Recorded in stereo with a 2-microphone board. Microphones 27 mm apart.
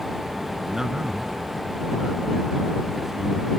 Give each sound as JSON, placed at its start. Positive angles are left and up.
{"t": 0.7, "sound": "a man speaking", "side_deg": -15}